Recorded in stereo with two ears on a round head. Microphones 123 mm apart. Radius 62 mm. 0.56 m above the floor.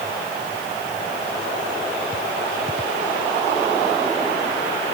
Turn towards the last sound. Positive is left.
No sound to turn to.